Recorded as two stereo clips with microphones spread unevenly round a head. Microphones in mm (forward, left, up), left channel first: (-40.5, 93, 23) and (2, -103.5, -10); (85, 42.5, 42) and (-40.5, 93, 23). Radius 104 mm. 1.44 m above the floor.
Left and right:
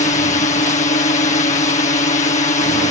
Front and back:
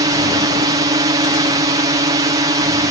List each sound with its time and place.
0.0 s a drone: 145° left